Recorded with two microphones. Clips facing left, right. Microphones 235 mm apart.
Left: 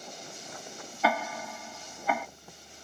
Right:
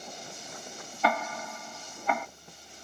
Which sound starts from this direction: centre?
Ticking, at 1.0 s.